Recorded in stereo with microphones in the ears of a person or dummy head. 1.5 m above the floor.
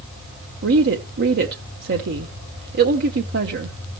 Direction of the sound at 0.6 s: 65° right (ahead or behind).